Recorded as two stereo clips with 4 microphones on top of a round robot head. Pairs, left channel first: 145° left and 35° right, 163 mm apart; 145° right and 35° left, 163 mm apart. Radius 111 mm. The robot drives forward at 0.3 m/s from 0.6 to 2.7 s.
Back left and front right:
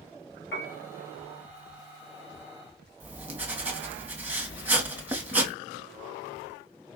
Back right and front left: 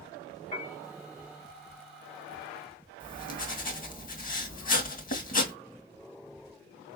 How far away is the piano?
About 2 m.